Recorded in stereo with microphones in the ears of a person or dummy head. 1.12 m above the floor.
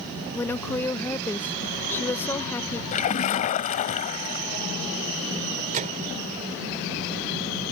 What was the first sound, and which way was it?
A woman speaking, 10° left (ahead or behind).